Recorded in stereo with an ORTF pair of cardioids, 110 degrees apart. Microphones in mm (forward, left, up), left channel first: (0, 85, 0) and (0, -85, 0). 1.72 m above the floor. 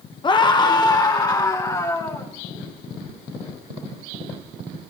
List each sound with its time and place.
0.2 s a scream: 25° left, 1.3 m; by 2.3 s 20° left, 3 m